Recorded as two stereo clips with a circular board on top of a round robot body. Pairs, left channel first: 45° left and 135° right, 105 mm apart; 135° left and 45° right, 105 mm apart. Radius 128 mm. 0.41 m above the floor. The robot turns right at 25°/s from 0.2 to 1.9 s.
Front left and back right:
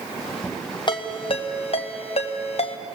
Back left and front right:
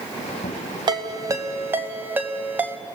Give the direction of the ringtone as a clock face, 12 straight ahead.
12 o'clock.